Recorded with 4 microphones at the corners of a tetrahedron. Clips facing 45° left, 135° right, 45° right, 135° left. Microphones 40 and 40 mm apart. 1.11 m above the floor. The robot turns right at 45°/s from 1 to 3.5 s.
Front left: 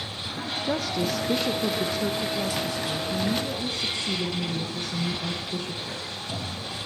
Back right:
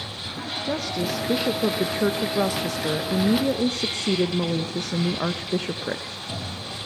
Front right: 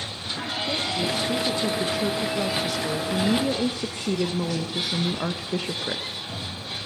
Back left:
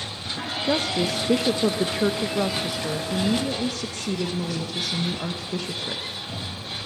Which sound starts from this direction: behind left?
A woman speaking, at 0.6 s.